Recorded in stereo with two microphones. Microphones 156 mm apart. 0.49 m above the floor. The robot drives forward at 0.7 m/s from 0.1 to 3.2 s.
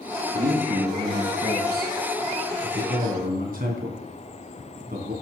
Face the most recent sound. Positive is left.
turn(degrees=-60)  # may be behind; listen again after turning